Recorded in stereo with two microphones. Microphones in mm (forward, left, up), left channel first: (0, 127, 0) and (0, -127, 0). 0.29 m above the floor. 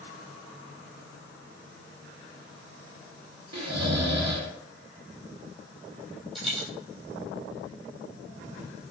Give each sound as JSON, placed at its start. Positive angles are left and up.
{"t": 3.5, "sound": "snoring", "side_deg": -80, "distance_m": 0.6}
{"t": 6.3, "sound": "a dropped coin", "side_deg": 0, "distance_m": 1.4}